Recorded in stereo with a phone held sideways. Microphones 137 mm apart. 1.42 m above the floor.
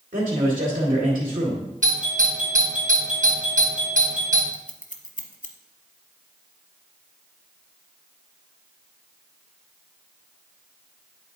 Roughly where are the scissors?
Left.